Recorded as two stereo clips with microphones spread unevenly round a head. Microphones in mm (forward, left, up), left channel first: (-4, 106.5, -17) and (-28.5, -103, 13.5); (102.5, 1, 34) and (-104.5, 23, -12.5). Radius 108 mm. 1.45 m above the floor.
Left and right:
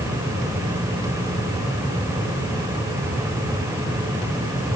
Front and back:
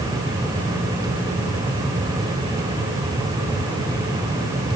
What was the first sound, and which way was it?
Only background noise.